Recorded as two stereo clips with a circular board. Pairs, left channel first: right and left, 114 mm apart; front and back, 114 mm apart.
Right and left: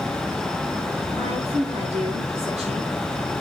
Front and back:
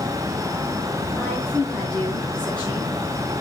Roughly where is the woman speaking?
Left.